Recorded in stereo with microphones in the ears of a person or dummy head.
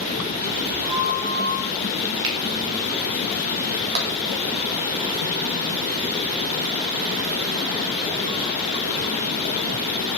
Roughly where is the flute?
Right.